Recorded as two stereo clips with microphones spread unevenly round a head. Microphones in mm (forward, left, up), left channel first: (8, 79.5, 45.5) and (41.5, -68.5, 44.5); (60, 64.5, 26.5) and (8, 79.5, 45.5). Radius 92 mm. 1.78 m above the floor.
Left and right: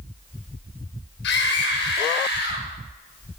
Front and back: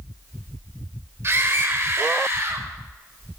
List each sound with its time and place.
1.2 s a scream: 125° left, 7.5 m; by 2.7 s 130° left, 8 m